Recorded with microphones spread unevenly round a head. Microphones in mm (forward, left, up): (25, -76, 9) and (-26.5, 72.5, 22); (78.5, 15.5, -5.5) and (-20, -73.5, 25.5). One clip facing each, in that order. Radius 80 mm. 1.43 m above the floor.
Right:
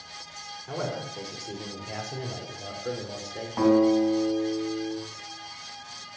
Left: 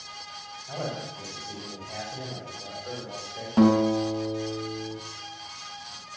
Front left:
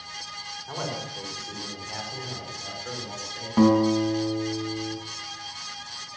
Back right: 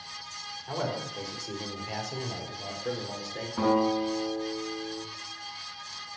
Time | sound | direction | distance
0.7 | a man speaking | 60° right | 5 m
3.6 | a guitar | 65° left | 4 m